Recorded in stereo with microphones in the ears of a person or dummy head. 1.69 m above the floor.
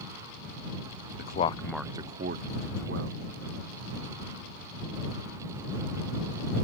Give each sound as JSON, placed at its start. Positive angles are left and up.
{"t": 1.2, "sound": "a man speaking", "side_deg": 45}